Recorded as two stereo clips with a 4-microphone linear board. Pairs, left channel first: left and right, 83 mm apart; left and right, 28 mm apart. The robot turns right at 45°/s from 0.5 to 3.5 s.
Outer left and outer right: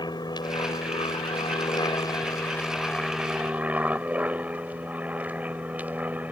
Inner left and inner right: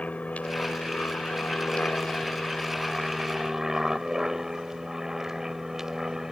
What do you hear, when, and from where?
0.0 s an aircraft: 55° left (ahead or behind); by 6.3 s 15° right (ahead or behind)